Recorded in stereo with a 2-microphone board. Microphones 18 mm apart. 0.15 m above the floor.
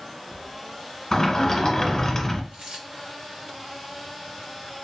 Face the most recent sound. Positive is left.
turn(degrees=-65)  # may be behind; listen again after turning